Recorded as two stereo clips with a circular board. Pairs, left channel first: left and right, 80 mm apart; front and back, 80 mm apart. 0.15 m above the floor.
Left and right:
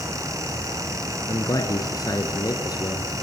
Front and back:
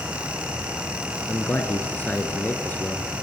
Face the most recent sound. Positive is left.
turn(degrees=65)